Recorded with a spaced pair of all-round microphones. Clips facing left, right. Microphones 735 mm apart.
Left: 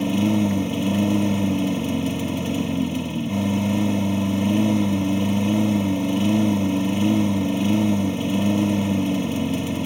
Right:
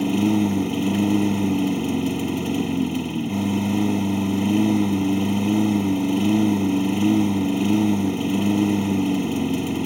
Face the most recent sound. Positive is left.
turn(degrees=10)  # may be behind; listen again after turning